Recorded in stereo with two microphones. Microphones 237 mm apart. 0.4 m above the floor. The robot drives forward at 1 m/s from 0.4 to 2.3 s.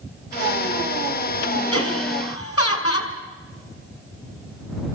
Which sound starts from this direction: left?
Laughter, at 1.7 s.